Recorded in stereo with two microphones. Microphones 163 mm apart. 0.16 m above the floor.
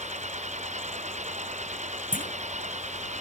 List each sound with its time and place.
0.0 s an engine running: 45° right (ahead or behind)
2.1 s a clunk: 55° left (ahead or behind)